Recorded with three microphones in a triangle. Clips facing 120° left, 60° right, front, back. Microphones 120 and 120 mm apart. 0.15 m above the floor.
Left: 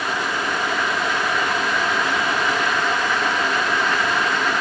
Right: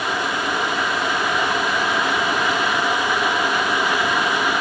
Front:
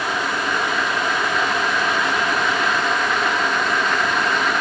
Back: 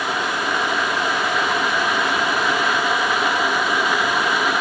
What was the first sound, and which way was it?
Only background noise.